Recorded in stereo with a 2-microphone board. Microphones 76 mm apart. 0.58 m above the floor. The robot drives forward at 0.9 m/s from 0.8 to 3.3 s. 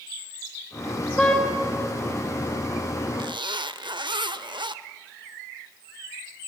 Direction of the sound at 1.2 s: 5° left (ahead or behind).